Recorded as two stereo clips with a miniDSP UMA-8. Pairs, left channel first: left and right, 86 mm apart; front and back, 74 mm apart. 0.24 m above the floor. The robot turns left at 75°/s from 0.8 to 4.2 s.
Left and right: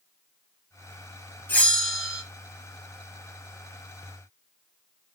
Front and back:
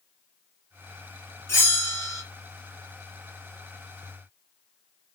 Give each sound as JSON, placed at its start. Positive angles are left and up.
{"t": 1.5, "sound": "a bell", "azimuth_deg": 35, "distance_m": 1.1}